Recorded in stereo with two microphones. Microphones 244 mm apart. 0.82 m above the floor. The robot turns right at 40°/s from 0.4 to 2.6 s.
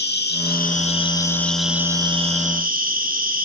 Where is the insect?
130° left, 1.6 m; by 3.5 s 140° right, 1.6 m.